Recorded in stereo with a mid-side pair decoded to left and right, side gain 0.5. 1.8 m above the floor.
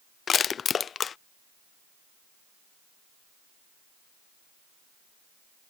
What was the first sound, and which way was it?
Crushing, 45° left.